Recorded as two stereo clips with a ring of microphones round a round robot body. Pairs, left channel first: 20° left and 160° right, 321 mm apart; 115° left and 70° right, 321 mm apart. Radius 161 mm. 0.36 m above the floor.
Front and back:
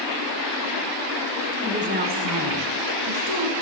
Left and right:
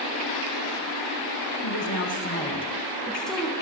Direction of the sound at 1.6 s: 125° left.